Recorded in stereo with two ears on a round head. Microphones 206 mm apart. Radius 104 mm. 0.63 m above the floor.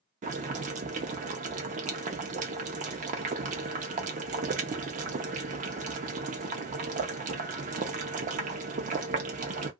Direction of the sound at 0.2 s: 30° right (ahead or behind).